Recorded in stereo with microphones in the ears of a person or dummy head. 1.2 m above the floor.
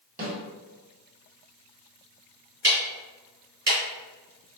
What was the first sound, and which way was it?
A snare drum, 45° right (ahead or behind).